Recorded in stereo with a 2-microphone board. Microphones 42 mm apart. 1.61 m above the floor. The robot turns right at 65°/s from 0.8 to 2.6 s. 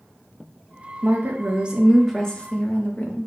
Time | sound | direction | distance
1.0 | a woman speaking | 65° right | 0.9 m